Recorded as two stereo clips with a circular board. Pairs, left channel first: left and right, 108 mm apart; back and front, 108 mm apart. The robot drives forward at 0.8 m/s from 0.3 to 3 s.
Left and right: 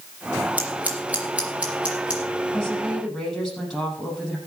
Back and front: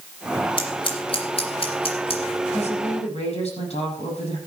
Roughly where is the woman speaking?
Behind.